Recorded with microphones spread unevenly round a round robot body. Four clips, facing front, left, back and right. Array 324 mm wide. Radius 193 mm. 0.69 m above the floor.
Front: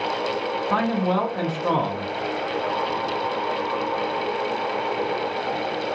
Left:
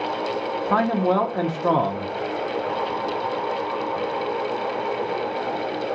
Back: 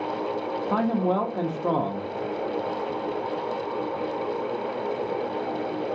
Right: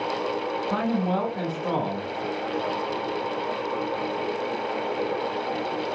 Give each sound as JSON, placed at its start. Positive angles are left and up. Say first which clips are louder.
{"t": 0.7, "sound": "a man speaking", "louder": "left 6 dB, front 1 dB", "azimuth_deg": 125, "distance_m": 0.7}